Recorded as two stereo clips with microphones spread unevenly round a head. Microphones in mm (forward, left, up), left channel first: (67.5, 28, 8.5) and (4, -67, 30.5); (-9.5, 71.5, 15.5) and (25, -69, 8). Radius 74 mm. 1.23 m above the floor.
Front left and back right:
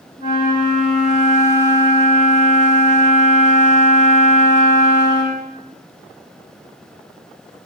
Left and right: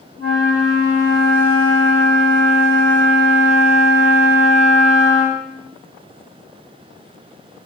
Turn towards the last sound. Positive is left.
turn(degrees=-100)